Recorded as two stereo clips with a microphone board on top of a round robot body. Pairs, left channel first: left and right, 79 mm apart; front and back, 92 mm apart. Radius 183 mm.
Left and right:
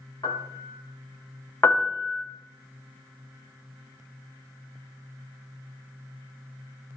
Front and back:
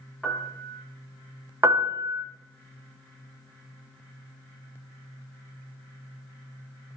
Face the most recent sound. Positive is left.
turn(degrees=140)